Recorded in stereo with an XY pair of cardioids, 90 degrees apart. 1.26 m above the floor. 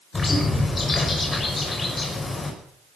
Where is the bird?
40° left, 6 m.